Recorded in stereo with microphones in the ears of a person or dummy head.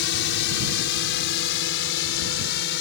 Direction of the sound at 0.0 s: 65° left (ahead or behind).